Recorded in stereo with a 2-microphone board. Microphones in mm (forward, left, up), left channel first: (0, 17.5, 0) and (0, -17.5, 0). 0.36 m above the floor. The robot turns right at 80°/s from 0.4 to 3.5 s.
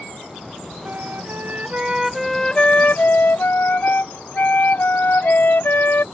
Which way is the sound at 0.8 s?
110° right.